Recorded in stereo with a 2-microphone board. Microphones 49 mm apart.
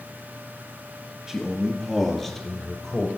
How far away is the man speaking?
About 1.6 m.